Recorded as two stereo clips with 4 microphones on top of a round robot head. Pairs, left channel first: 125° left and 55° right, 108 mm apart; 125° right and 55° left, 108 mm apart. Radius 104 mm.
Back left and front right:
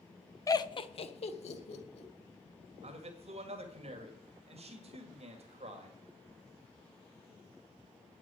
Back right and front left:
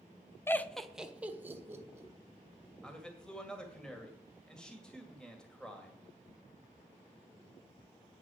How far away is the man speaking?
About 2 m.